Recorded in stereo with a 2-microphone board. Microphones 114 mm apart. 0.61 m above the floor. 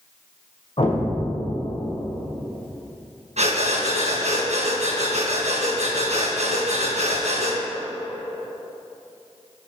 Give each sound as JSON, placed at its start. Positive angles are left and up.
{"t": 0.8, "sound": "an explosion", "side_deg": 55, "distance_m": 2.0}
{"t": 3.4, "sound": "breathing", "side_deg": -80, "distance_m": 3.0}